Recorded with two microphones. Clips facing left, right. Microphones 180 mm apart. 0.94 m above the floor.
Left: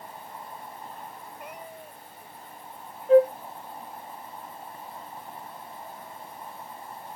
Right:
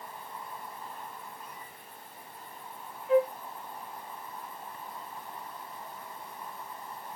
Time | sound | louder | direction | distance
0.0 | an insect | left 2 dB | 30° left (ahead or behind) | ?
1.4 | a cat meowing | left 6 dB | 70° left (ahead or behind) | ?
3.1 | a flute | left 7 dB | 35° left (ahead or behind) | ?